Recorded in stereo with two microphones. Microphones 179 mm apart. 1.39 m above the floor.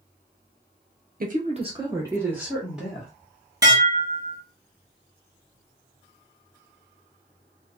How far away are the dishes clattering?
About 1.4 m.